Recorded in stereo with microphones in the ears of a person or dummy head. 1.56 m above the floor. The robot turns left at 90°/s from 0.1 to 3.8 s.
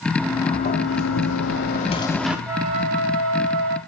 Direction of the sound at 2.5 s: 10° right.